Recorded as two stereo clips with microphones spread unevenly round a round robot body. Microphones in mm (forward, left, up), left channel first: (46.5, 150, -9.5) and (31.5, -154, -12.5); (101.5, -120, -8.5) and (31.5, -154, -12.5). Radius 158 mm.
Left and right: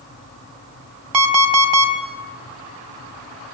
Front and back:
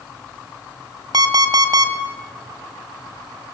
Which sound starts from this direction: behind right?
An alarm clock, at 1.1 s.